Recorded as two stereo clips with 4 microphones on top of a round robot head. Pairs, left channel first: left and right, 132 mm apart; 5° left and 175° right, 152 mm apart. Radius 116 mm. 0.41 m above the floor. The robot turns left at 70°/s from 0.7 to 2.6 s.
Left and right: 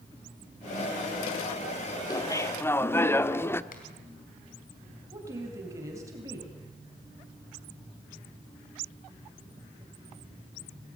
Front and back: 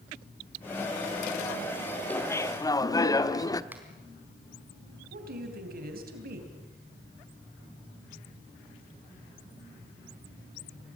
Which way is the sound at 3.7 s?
110° left.